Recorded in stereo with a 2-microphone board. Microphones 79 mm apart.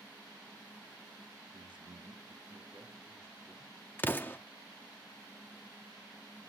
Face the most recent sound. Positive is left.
turn(degrees=25)  # may be behind; listen again after turning